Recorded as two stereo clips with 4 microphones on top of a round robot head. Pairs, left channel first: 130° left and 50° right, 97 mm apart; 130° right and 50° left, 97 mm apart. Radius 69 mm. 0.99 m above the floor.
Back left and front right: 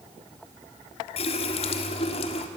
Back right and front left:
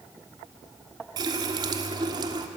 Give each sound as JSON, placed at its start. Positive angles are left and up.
{"t": 1.2, "sound": "a running tap", "azimuth_deg": 100, "distance_m": 1.4}